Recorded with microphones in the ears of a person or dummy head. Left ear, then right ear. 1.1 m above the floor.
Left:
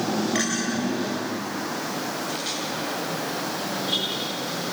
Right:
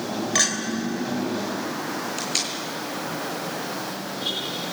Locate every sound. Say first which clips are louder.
0.3 s a clink: right 8 dB; 45° right (ahead or behind), 3 m
2.2 s tape being pulled: right 1 dB; 80° right, 6 m